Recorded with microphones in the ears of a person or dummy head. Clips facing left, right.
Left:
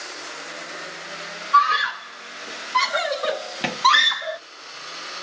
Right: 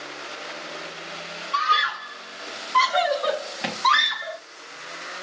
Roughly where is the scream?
Centre.